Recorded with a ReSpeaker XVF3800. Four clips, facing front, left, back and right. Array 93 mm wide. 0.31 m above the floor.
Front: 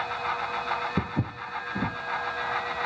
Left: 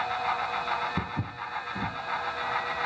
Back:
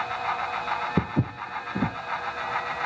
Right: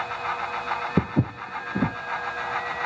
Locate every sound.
1.0 s footsteps: 110° right, 0.8 m